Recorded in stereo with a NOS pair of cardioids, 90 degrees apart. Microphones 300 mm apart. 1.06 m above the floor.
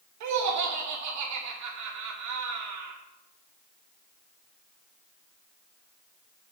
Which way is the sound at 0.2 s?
70° right.